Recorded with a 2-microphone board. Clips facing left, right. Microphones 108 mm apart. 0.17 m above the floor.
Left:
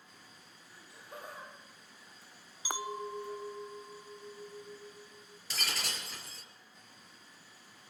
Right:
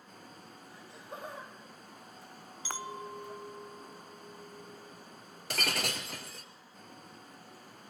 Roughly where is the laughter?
Right.